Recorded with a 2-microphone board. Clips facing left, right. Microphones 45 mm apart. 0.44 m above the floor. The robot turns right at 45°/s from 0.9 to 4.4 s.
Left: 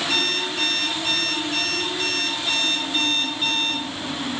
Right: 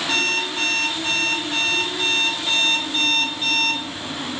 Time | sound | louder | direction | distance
0.1 | an alarm clock | right 5 dB | 100° right | 1.2 m